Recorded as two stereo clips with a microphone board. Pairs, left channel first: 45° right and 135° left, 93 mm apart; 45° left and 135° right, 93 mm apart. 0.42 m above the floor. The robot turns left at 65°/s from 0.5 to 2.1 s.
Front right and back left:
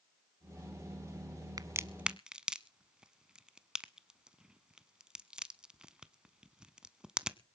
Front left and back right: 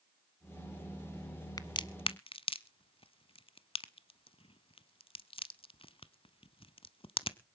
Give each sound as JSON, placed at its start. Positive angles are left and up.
{"t": 1.6, "sound": "a crack", "azimuth_deg": 90, "distance_m": 0.7}